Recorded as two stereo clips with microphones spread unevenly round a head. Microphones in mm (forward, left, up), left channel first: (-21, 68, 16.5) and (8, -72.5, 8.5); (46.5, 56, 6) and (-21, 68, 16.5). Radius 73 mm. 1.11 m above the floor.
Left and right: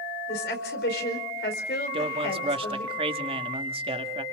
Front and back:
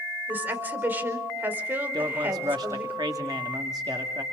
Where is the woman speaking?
110° left, 4.5 m.